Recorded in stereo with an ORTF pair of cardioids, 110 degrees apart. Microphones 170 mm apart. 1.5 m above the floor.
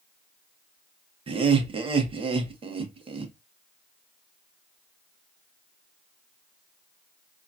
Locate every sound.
1.3 s laughter: 30° right, 1.1 m